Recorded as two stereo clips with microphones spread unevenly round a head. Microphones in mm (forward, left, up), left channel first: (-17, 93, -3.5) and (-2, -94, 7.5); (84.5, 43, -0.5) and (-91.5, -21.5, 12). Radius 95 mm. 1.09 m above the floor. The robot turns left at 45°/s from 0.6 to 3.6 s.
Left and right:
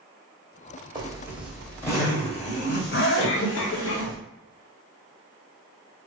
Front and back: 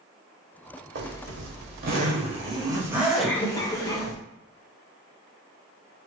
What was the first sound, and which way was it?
A zipper, 145° right.